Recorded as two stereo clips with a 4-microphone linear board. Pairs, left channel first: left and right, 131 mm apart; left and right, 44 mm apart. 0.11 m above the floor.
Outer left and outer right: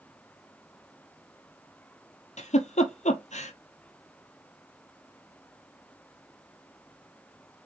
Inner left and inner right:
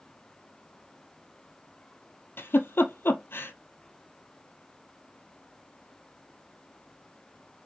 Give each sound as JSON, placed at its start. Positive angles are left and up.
{"t": 2.4, "sound": "a giggle", "side_deg": 65, "distance_m": 0.8}